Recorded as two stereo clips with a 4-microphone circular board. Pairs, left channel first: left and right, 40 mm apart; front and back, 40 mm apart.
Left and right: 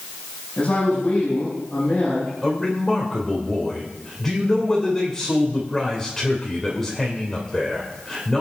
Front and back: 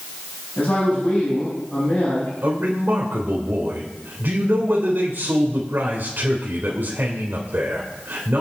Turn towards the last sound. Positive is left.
turn(degrees=170)